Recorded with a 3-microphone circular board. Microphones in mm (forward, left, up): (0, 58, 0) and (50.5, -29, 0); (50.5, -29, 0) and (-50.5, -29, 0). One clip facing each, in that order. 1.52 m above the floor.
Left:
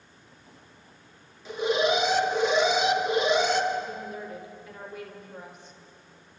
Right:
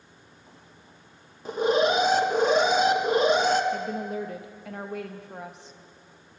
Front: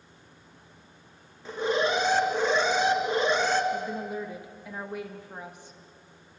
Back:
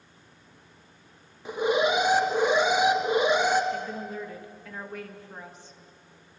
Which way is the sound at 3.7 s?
75° right.